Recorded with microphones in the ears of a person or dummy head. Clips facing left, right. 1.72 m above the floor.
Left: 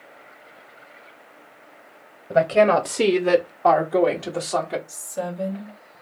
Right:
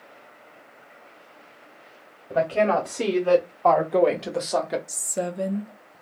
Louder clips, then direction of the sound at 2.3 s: Left 5 dB; 50° left (ahead or behind).